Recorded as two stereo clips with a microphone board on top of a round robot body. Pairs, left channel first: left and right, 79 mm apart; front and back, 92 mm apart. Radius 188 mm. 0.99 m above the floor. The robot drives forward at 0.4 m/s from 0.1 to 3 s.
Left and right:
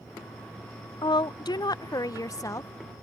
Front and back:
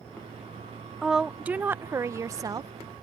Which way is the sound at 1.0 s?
90° left.